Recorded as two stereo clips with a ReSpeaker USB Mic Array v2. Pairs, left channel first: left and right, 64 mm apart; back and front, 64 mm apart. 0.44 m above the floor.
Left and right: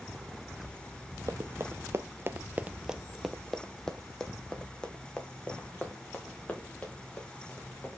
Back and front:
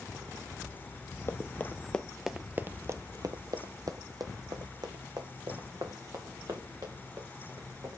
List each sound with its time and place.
1.3 s running footsteps: 135° right, 0.8 m; by 8.0 s 20° left, 3.5 m